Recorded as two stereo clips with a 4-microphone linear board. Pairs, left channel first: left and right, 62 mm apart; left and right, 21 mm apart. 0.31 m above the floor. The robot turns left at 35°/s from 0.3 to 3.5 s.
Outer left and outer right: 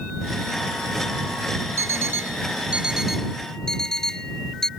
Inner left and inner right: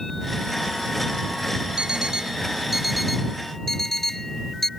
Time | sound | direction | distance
1.8 | an alarm clock | 40° right (ahead or behind) | ?